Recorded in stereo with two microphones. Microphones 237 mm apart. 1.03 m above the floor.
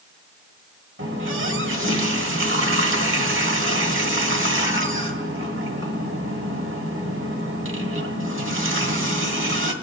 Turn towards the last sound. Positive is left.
turn(degrees=-60)  # may be behind; listen again after turning